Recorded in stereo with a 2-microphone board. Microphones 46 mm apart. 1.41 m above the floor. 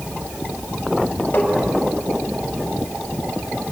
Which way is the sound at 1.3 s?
50° left (ahead or behind).